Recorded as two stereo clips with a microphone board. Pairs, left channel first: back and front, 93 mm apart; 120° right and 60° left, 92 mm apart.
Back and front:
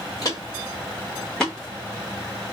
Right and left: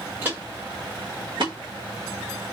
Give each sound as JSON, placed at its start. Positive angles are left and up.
{"t": 0.2, "sound": "footsteps", "azimuth_deg": 130, "distance_m": 1.6}